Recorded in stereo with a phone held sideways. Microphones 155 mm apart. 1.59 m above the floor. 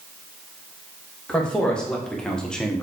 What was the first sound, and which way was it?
A man speaking, 5° left (ahead or behind).